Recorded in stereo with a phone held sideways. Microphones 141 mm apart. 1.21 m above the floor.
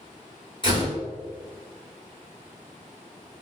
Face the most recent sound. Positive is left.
turn(degrees=35)  # may be behind; listen again after turning